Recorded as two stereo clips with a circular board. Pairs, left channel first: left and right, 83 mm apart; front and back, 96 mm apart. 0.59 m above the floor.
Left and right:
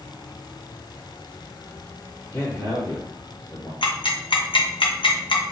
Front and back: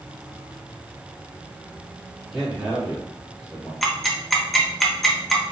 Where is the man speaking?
100° left, 1.2 m.